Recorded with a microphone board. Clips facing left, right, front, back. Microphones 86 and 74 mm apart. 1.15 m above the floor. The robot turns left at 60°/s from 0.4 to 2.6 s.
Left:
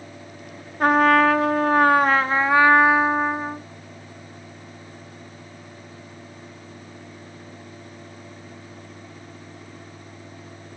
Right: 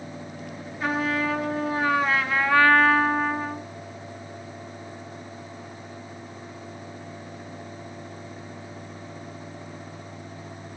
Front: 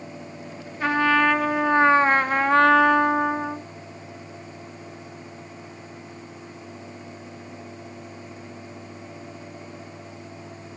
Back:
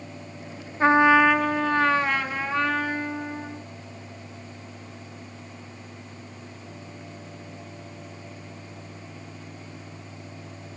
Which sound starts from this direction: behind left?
A trumpet, at 0.8 s.